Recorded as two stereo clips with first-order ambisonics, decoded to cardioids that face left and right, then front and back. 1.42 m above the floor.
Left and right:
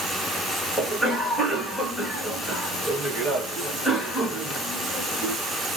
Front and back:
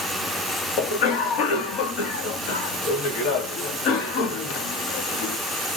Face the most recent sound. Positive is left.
turn(degrees=-10)